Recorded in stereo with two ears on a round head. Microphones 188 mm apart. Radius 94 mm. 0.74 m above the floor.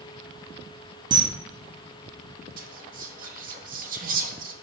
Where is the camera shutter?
20° right (ahead or behind), 0.7 m.